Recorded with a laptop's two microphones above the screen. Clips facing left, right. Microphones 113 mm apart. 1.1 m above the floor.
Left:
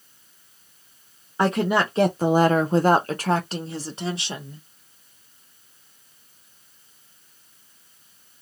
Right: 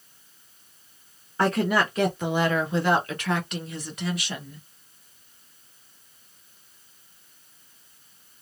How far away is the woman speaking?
About 0.7 m.